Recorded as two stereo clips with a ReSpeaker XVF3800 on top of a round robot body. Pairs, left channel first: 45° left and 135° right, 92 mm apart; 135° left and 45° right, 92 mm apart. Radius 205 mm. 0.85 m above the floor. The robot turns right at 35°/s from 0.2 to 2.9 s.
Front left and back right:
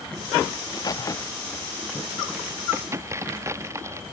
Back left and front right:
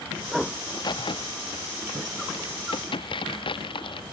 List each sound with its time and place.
0.6 s a crack: 85° left; by 4.0 s 165° left